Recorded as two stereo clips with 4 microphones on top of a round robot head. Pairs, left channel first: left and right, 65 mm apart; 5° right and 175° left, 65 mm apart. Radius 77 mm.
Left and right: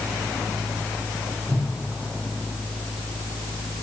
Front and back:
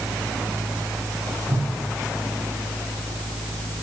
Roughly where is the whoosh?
Behind right.